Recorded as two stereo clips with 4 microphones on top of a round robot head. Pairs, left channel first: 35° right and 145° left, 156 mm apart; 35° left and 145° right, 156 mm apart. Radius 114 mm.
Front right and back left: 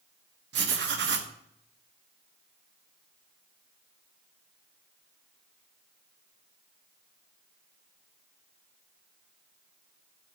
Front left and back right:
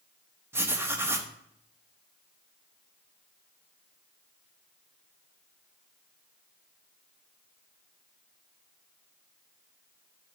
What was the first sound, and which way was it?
Writing, 140° left.